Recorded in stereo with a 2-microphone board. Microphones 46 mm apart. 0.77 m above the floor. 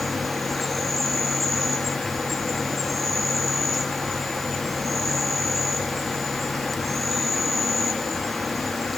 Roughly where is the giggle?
I don't hear a giggle.